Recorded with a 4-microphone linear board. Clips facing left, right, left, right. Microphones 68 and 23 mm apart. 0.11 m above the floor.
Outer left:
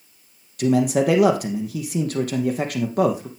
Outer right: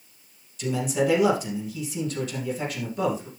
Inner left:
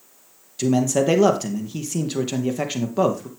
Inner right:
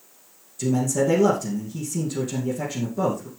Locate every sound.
0.6 s a man speaking: 60° left (ahead or behind), 2.5 m